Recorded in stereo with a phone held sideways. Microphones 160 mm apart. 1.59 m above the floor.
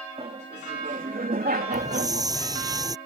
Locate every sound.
0.2 s laughter: 40° right (ahead or behind); by 2.3 s 85° right
1.7 s a hiss: 25° right (ahead or behind)